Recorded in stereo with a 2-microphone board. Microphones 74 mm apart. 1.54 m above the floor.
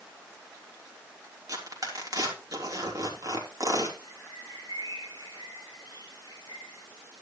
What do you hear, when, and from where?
1.5 s tearing paper: 50° right (ahead or behind), 3.5 m
4.0 s a bird: 65° right (ahead or behind), 7.5 m